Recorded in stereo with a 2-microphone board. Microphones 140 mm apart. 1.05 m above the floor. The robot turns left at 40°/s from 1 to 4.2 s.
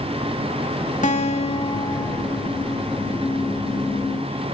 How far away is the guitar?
About 1.9 m.